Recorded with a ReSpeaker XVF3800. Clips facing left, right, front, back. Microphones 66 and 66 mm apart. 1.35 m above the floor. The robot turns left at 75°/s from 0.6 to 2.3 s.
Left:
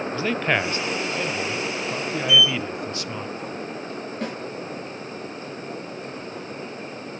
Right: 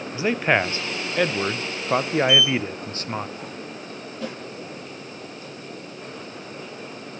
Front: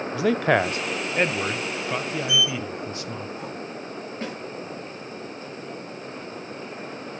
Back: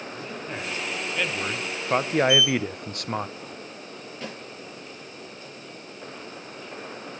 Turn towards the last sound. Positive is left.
turn(degrees=55)